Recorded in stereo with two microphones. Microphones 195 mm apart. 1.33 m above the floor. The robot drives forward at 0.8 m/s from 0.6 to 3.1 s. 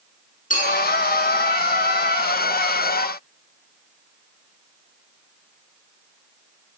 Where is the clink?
45° left (ahead or behind), 9.5 m.